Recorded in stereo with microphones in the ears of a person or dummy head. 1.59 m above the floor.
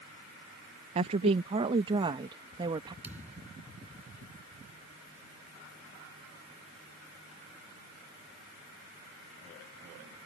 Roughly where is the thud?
Centre.